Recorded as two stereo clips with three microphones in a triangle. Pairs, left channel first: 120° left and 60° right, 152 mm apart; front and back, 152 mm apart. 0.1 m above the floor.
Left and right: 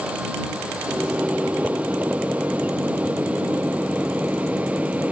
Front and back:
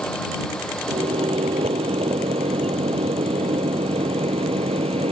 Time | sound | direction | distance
0.9 | a microwave | 140° right | ?